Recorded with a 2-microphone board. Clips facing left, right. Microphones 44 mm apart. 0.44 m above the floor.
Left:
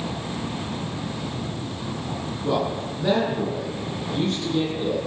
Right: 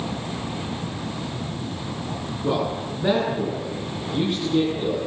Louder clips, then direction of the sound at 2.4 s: Even; 15° right (ahead or behind).